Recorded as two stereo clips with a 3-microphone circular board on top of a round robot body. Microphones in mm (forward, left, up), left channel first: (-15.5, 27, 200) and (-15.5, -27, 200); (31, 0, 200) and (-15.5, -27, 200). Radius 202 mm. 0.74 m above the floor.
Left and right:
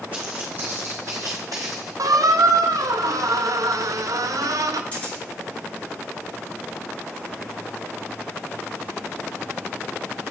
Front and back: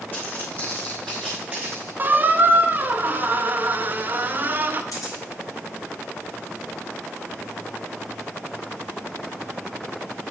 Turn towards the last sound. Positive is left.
turn(degrees=25)